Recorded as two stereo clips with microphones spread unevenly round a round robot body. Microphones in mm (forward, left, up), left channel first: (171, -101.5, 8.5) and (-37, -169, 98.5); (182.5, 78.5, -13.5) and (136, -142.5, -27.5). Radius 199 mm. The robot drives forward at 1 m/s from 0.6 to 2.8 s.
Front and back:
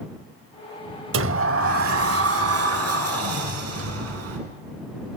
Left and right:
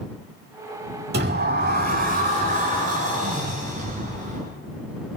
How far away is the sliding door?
About 1.2 m.